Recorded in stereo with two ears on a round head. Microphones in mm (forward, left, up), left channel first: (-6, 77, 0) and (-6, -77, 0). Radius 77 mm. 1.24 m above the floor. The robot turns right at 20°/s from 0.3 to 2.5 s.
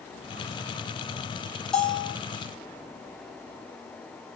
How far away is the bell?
About 3 m.